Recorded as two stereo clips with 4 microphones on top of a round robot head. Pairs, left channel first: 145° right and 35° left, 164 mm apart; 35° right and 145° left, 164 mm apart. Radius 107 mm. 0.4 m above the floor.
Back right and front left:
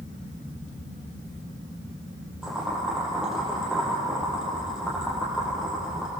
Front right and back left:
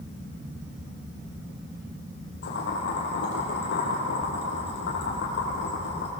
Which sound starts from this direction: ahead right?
Boiling, at 2.4 s.